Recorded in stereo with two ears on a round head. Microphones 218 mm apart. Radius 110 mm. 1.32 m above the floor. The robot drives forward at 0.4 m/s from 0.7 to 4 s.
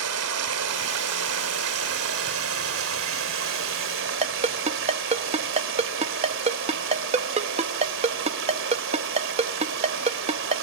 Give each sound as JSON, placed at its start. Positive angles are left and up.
{"t": 0.0, "sound": "running water", "side_deg": -80, "distance_m": 3.0}
{"t": 4.2, "sound": "a ringtone", "side_deg": -30, "distance_m": 0.8}